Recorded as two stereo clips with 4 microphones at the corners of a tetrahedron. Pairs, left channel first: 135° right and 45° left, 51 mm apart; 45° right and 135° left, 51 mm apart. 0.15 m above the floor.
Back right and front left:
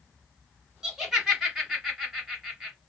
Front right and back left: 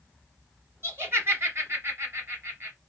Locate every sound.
0.8 s laughter: 125° left, 1.9 m